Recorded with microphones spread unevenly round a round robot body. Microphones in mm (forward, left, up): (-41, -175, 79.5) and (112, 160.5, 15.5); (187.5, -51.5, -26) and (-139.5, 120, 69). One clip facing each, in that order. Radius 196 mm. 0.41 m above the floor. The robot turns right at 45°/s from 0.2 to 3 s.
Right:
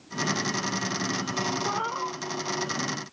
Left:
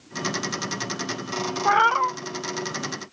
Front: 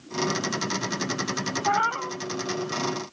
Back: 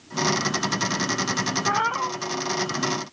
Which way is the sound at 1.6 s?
55° left.